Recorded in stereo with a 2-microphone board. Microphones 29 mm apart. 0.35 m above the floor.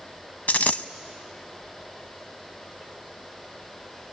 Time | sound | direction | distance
0.5 | a dropped coin | 85° left | 0.6 m